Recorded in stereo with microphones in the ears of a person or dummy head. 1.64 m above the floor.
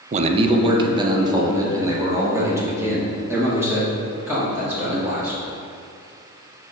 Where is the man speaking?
40° right (ahead or behind), 0.6 m; by 5.4 s 10° right (ahead or behind), 3.5 m.